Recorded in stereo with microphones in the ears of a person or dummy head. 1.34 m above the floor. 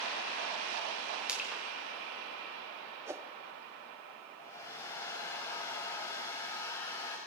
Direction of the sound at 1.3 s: 10° right (ahead or behind).